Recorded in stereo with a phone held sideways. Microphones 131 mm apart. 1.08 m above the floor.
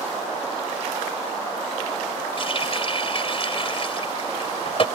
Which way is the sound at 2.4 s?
45° left (ahead or behind).